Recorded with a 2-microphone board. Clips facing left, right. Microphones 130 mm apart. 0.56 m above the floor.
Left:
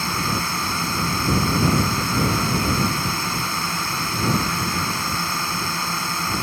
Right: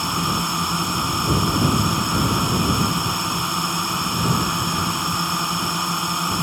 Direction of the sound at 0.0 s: 15° right (ahead or behind).